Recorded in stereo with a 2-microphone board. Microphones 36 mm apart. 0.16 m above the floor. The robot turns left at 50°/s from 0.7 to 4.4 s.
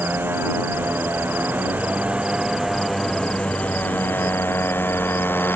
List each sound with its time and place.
0.0 s a motorcycle: 70° right; by 5.6 s 105° left